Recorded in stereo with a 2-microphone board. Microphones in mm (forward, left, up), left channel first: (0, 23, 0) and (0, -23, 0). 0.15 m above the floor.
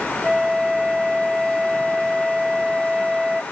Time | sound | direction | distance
0.2 | a flute | 10° right (ahead or behind) | ?